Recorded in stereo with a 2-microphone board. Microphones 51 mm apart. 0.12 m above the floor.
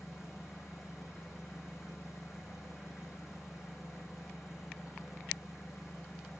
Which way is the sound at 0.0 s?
5° right (ahead or behind).